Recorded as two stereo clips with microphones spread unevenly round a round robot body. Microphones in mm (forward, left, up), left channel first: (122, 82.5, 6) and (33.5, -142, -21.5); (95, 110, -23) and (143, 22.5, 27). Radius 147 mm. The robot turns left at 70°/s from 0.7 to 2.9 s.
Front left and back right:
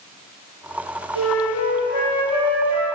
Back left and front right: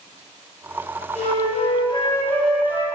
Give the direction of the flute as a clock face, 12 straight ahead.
8 o'clock.